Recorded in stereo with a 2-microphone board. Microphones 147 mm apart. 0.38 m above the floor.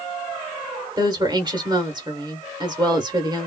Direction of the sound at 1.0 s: 30° right (ahead or behind).